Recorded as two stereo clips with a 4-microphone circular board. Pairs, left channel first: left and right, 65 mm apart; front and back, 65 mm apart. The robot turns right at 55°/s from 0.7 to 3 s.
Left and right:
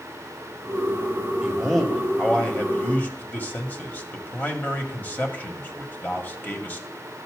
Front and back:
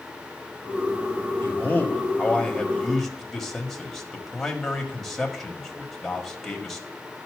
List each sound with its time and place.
1.4 s a man speaking: 10° right, 1.1 m; by 6.9 s 80° left, 1.1 m